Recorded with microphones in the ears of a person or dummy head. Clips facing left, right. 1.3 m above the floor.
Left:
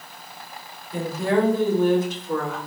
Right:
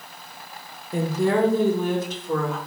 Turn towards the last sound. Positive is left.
turn(degrees=-80)